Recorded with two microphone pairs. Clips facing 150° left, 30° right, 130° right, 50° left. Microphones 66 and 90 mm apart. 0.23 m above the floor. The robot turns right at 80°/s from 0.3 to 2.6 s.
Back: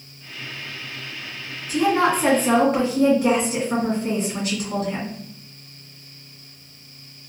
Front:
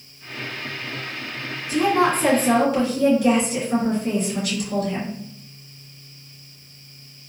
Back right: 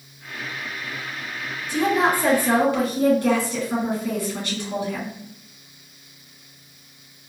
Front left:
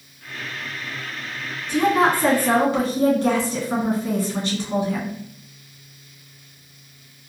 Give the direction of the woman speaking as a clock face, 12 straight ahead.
11 o'clock.